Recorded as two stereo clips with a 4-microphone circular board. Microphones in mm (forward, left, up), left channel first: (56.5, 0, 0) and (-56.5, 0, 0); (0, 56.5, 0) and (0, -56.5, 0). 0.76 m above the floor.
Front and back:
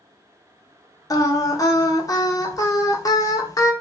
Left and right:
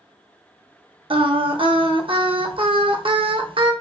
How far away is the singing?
About 0.5 m.